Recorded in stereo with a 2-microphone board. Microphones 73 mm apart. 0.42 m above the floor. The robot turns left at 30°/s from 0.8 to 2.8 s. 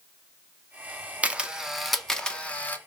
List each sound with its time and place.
1.2 s a camera shutter: 20° right (ahead or behind), 0.5 m; by 2.8 s 25° left (ahead or behind), 0.5 m